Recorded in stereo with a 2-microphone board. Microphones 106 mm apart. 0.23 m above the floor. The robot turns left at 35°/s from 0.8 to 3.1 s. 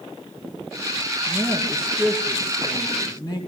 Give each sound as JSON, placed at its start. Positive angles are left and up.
{"t": 1.3, "sound": "a woman speaking", "azimuth_deg": -155, "distance_m": 2.5}